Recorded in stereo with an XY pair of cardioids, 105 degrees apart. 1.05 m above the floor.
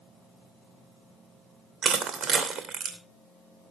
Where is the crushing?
60° right, 2.5 m.